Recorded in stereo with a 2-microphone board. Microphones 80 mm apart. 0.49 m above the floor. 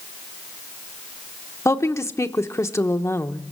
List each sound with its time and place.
1.6 s a woman speaking: 35° left (ahead or behind), 0.9 m